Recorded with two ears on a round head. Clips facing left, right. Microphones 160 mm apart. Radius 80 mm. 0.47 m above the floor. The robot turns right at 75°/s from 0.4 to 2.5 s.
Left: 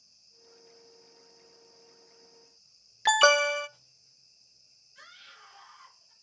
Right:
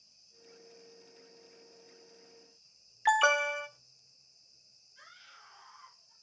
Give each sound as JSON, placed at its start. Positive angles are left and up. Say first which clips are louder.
{"t": 3.0, "sound": "an alarm", "louder": "left 5 dB", "side_deg": 50, "distance_m": 0.6}
{"t": 5.0, "sound": "a scream", "louder": "left 3 dB", "side_deg": 65, "distance_m": 6.5}